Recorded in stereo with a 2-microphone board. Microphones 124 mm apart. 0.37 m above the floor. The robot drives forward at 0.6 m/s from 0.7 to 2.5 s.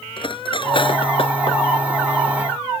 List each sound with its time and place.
0.2 s cutlery clinking: 45° left (ahead or behind); by 1.6 s 50° left (ahead or behind)